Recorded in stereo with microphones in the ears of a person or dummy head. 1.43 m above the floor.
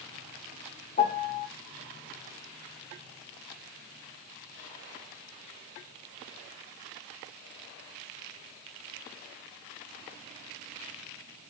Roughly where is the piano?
Left.